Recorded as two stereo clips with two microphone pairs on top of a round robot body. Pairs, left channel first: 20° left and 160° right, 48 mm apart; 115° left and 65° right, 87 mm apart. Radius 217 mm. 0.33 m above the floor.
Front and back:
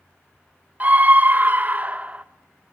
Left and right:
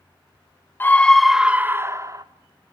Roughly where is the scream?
Behind left.